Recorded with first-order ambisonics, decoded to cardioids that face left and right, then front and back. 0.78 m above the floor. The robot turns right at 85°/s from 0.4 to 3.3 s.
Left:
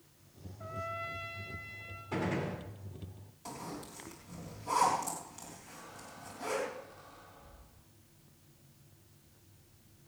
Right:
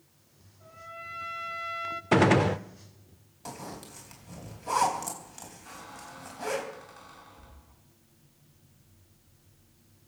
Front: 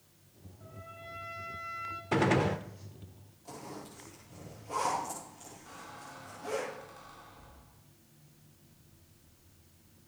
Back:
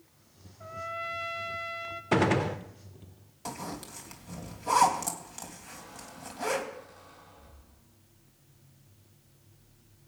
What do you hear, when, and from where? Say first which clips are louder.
0.6 s a trumpet: left 4 dB, back 13 dB; 135° left, 1.2 m; by 2.0 s 105° right, 1.2 m
2.1 s a gunshot: right 14 dB, back 2 dB; 115° right, 0.6 m; by 2.6 s 70° right, 0.6 m
3.5 s a zipper: right 2 dB, back 6 dB; 155° right, 3.5 m
5.7 s a squeak: right 5 dB, back 1 dB; 80° right, 3.5 m